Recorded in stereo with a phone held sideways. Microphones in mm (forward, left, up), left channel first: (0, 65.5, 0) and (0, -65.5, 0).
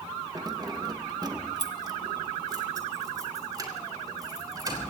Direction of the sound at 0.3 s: 30° right (ahead or behind).